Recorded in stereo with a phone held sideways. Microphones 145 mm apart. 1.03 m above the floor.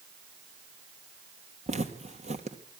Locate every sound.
1.7 s footsteps: 45° right (ahead or behind), 1.8 m